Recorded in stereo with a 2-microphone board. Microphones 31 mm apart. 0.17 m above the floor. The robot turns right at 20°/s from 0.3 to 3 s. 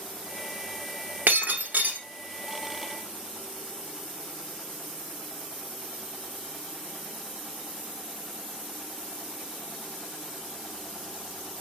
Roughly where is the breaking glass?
Right.